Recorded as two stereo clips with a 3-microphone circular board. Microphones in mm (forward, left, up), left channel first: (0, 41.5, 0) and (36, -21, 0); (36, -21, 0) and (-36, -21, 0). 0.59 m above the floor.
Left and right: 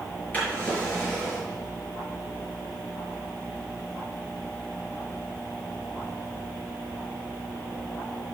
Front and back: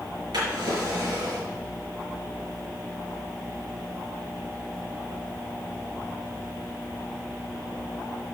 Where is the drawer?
175° right, 5 m.